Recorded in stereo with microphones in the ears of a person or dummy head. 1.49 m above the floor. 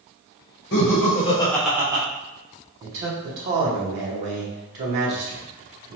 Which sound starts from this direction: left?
Laughter, at 0.7 s.